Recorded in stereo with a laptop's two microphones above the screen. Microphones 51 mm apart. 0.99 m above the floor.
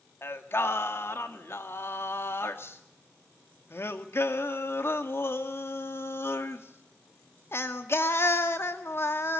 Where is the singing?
55° left (ahead or behind), 2 m.